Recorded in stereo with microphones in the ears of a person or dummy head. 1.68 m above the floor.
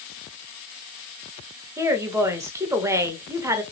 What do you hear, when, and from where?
1.8 s a woman speaking: 15° right (ahead or behind), 0.8 m